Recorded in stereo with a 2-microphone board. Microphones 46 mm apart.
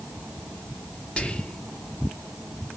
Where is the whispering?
25° left (ahead or behind), 0.7 m.